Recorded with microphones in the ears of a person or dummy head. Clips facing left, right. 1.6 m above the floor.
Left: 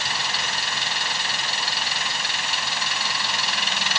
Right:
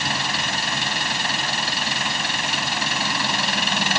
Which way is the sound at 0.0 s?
45° right (ahead or behind).